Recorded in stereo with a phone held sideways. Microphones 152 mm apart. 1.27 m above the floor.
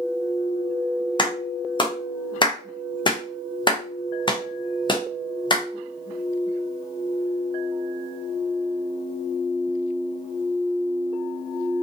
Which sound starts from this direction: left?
A clap, at 1.2 s.